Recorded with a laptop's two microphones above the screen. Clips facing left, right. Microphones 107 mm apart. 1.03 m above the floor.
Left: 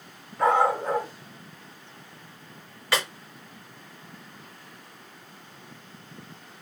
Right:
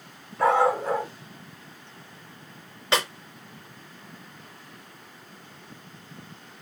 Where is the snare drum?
20° right (ahead or behind), 2.5 m.